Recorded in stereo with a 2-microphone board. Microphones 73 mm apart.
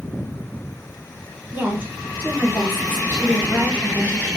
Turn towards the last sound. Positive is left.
turn(degrees=-25)  # may be behind; listen again after turning